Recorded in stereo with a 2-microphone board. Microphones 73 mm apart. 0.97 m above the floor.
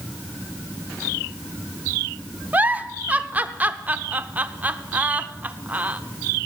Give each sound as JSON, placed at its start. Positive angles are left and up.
{"t": 2.5, "sound": "a giggle", "side_deg": -20, "distance_m": 0.6}